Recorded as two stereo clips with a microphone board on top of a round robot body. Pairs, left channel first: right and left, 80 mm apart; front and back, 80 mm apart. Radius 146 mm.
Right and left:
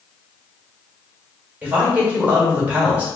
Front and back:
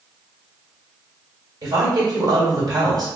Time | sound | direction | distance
1.6 | a woman speaking | 160° left | 1.7 m